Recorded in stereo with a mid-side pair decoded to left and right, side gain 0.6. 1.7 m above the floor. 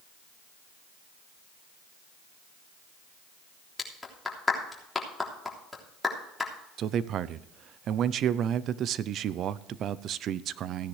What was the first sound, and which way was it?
A clap, 10° left.